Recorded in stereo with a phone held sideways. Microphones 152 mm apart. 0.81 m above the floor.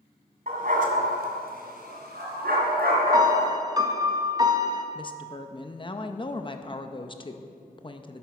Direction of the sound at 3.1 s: 25° right (ahead or behind).